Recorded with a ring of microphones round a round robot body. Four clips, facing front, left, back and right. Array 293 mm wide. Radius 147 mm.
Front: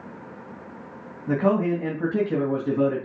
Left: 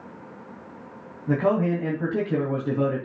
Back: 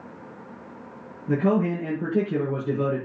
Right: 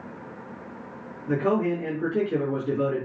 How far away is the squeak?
No squeak in this recording.